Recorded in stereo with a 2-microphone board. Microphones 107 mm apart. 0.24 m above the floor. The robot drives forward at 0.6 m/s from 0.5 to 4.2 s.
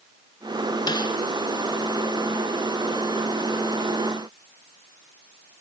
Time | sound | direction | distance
0.9 | a snare drum | 40° left (ahead or behind) | 1.3 m